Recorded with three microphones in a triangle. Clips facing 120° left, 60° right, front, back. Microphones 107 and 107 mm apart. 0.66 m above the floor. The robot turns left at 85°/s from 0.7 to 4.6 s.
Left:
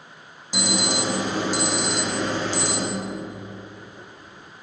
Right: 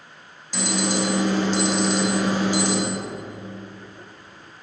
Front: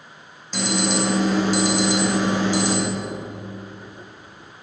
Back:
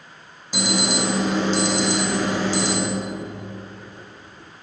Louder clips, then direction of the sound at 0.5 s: Right 1 dB, front 1 dB; 135° left.